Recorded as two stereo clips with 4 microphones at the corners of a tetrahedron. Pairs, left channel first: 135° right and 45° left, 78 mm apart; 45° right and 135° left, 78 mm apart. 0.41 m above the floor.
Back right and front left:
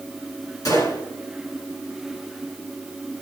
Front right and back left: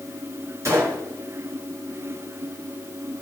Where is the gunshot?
175° right, 4 m.